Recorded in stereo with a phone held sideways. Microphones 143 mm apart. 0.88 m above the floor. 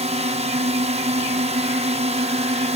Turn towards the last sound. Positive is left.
turn(degrees=-50)  # may be behind; listen again after turning